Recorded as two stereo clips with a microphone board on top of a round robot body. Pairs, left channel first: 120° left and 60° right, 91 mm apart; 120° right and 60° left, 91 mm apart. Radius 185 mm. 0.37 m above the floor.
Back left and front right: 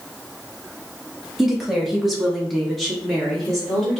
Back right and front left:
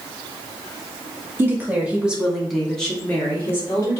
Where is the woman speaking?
25° left, 1.5 m; by 4.0 s 155° right, 1.6 m.